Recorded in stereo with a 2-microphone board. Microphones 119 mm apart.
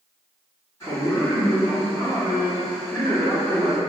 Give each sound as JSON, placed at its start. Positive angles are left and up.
{"t": 0.8, "sound": "a man speaking", "side_deg": 25, "distance_m": 2.0}